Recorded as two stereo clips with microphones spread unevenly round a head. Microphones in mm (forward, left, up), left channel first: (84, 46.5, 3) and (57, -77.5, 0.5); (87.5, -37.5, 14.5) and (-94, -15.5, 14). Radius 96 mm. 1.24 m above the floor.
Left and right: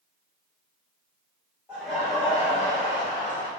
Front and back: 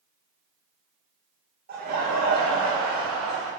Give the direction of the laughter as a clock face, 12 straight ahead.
6 o'clock.